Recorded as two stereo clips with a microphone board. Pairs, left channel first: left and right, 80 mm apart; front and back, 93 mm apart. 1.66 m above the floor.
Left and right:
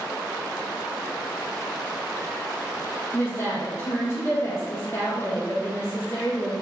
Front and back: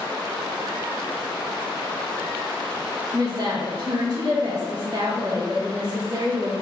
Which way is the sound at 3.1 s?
140° left.